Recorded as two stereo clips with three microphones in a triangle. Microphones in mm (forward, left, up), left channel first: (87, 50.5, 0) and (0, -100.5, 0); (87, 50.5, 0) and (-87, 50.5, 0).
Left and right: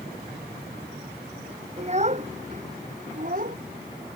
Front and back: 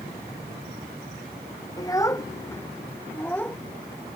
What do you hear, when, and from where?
1.8 s a child speaking: 70° right; by 3.6 s 80° right